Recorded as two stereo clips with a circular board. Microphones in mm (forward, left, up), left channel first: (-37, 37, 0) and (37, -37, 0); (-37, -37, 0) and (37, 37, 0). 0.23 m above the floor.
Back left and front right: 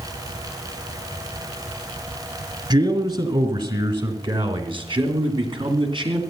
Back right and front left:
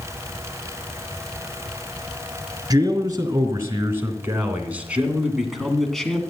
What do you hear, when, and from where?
2.7 s a man speaking: 5° right, 3 m; by 6.2 s 55° right, 2 m